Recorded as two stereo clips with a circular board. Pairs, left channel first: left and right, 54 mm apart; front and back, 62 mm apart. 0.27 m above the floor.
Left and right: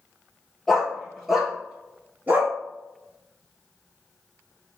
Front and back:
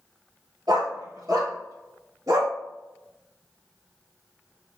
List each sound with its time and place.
0.7 s a dog barking: 175° left, 1.5 m; by 2.5 s 145° right, 1.1 m